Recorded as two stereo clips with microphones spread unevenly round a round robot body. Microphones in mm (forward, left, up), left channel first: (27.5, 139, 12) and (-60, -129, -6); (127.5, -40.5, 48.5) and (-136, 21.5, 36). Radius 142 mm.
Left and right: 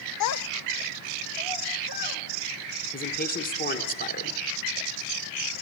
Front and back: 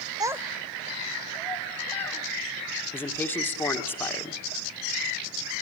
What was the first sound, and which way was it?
A child speaking, 95° left.